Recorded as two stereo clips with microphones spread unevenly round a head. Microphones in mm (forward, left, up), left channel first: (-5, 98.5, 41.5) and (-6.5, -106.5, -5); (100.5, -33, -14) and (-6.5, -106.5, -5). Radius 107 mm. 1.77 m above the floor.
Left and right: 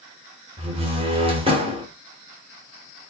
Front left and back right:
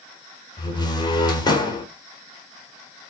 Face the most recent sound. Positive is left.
turn(degrees=-20)